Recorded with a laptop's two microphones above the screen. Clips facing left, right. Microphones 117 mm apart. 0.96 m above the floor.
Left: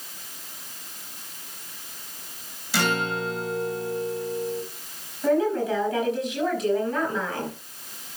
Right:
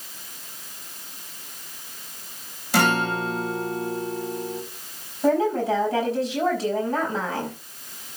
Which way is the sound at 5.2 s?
30° right (ahead or behind).